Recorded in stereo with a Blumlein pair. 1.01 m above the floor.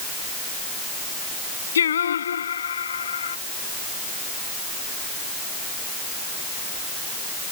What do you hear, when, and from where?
1.8 s singing: 65° left